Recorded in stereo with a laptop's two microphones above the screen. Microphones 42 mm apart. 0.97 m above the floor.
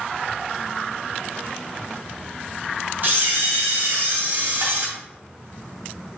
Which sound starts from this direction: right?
A camera shutter, at 3.0 s.